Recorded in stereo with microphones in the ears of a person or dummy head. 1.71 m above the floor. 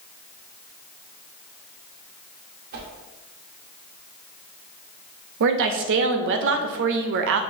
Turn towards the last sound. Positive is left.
turn(degrees=-60)  # may be behind; listen again after turning